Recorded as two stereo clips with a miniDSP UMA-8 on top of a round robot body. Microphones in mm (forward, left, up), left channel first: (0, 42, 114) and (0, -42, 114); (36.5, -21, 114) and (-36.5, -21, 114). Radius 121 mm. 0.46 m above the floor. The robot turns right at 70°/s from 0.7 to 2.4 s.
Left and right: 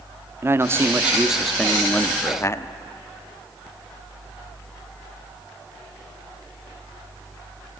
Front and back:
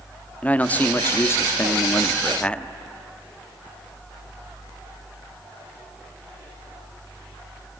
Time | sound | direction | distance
0.4 | a man speaking | 55° right | 1.1 m